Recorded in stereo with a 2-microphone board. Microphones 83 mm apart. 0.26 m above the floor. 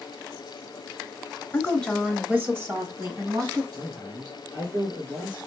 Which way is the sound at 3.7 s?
60° right (ahead or behind).